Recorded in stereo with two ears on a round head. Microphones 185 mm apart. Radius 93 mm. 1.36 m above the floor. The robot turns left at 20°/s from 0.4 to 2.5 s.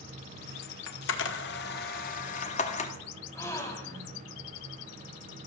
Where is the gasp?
15° left (ahead or behind), 1.9 m.